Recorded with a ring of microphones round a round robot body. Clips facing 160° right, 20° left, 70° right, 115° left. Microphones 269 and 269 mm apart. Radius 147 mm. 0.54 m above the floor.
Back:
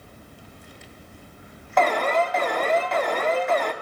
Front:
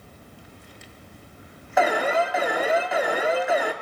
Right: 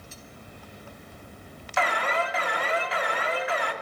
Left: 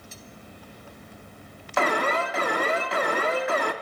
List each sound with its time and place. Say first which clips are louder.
1.8 s an alarm: even, left 4 dB; 100° left, 1.5 m